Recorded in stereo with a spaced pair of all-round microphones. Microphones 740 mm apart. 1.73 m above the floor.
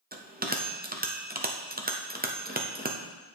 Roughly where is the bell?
Centre.